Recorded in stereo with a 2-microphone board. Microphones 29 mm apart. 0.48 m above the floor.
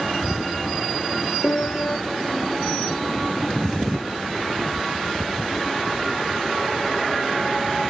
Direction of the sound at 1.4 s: 50° left (ahead or behind).